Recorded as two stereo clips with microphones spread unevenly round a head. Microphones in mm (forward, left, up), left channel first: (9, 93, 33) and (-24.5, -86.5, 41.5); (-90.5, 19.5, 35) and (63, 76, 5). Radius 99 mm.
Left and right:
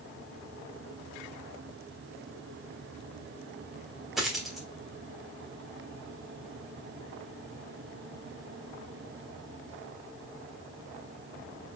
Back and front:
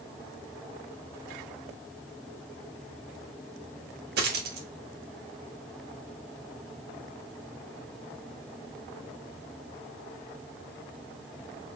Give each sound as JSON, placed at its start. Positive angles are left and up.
{"t": 4.2, "sound": "a dropped coin", "azimuth_deg": -15, "distance_m": 0.7}